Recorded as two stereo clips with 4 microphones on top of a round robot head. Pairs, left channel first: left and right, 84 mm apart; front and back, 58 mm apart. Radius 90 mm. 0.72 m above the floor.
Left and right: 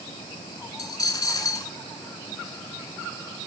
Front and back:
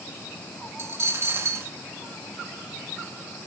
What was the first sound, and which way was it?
A dropped coin, 135° left.